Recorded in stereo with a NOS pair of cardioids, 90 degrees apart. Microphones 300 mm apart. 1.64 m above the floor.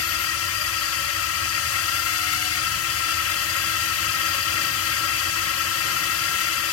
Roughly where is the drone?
Ahead left.